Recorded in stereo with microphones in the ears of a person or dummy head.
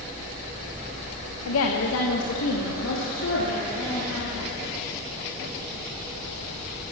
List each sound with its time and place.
1.4 s a woman speaking: 85° left, 1.1 m; by 4.5 s 70° left (ahead or behind), 3.5 m